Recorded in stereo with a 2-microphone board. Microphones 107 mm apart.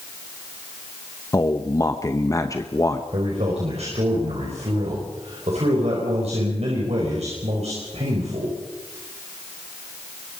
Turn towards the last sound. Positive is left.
turn(degrees=-80)